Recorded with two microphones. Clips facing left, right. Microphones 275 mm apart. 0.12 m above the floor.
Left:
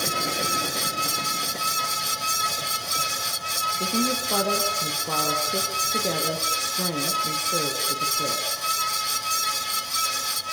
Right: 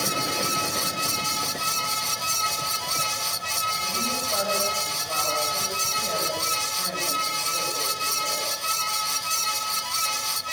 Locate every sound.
3.8 s a woman speaking: 70° left (ahead or behind), 5 m